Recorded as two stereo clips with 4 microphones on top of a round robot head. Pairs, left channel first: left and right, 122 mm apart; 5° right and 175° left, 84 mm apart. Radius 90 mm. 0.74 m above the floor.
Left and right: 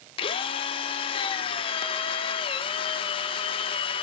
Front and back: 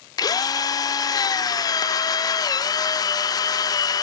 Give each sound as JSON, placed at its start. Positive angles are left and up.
{"t": 0.2, "sound": "a drill", "azimuth_deg": 40, "distance_m": 0.5}